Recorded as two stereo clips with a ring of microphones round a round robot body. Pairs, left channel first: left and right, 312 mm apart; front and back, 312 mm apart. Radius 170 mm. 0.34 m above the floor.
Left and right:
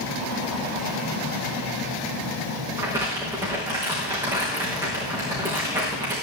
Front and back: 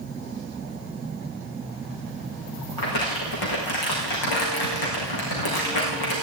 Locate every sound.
2.8 s crumpling: 10° right, 5 m